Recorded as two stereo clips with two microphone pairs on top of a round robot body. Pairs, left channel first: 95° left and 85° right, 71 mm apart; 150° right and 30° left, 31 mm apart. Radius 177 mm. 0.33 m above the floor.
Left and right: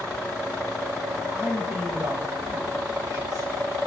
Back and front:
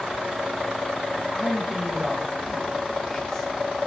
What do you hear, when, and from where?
1.3 s a man speaking: 15° right, 3.5 m; by 3.5 s 80° right, 2 m